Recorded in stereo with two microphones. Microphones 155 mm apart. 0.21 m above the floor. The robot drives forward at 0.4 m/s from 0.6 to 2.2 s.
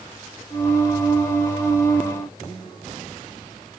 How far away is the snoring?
I don't hear snoring.